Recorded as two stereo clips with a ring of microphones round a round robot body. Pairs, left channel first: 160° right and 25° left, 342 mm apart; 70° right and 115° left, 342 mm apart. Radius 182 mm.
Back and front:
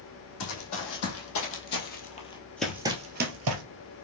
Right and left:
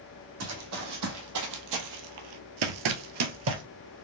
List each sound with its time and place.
0.4 s running footsteps: 160° left, 1.6 m; by 3.6 s 60° left, 0.7 m